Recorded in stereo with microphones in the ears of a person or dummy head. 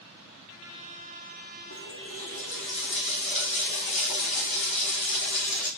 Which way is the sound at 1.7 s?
45° left (ahead or behind).